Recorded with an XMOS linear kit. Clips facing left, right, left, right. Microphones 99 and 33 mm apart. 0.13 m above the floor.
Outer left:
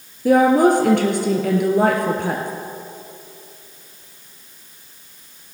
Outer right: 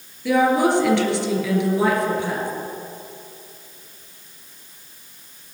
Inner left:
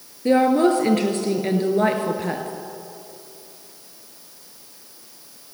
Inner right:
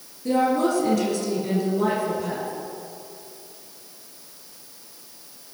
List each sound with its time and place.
0.2 s a woman speaking: 45° left (ahead or behind), 2 m; by 2.5 s 55° left (ahead or behind), 2 m